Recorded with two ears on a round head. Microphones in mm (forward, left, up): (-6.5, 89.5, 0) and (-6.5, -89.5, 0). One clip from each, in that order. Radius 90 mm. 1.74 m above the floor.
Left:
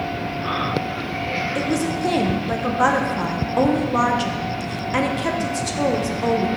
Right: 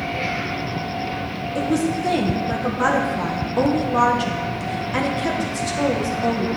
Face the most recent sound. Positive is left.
turn(degrees=10)  # may be behind; listen again after turning